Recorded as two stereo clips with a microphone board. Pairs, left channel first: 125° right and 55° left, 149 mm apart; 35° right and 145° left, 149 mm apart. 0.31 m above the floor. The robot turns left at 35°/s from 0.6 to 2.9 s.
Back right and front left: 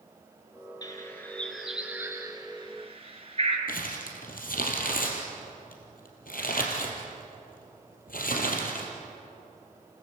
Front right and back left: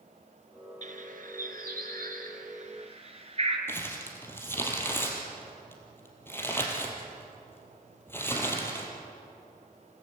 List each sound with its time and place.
0.8 s a bird: 175° left, 3 m; by 3.6 s 100° left, 3 m
3.7 s crumpling: 110° right, 3.5 m